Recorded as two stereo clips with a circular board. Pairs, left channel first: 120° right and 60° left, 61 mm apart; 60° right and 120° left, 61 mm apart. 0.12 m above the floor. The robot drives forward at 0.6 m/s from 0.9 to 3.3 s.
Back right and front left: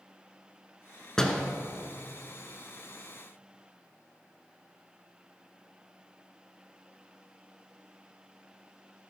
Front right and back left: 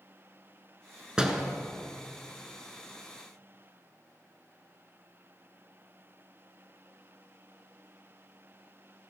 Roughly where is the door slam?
Behind.